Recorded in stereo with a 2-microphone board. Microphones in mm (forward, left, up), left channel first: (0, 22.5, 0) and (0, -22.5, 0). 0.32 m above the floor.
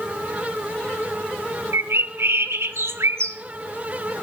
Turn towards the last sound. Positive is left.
turn(degrees=-75)  # may be behind; listen again after turning